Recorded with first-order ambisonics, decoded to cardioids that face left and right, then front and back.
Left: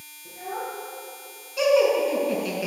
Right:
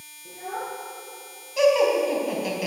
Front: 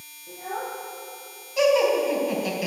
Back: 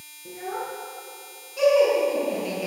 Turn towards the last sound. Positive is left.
turn(degrees=-55)